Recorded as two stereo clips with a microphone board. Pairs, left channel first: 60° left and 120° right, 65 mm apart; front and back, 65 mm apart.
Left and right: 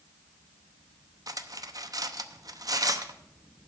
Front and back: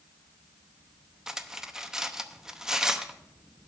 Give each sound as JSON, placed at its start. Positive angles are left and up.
{"t": 1.3, "sound": "cutlery clinking", "azimuth_deg": -95, "distance_m": 0.7}